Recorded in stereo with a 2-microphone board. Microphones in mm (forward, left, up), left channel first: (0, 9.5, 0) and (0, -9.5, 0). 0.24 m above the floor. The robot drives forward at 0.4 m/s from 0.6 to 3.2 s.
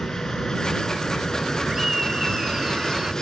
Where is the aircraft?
35° left (ahead or behind); by 3.2 s 30° left (ahead or behind).